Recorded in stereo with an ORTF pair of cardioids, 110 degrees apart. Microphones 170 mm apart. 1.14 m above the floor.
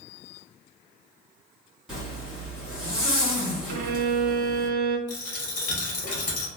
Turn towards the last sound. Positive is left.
turn(degrees=50)